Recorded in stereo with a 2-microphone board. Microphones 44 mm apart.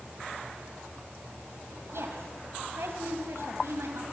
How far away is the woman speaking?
About 3.5 m.